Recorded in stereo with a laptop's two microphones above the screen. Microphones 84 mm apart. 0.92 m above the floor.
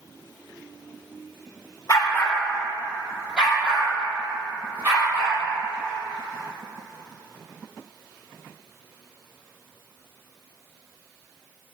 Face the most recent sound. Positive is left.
turn(degrees=-30)  # may be behind; listen again after turning